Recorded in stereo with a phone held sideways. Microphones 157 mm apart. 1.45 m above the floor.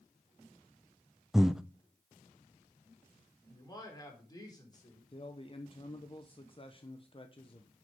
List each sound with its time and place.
1.3 s breathing: 5° right (ahead or behind), 0.5 m
3.5 s a man speaking: 25° left (ahead or behind), 4 m
5.1 s a man speaking: 35° left (ahead or behind), 0.9 m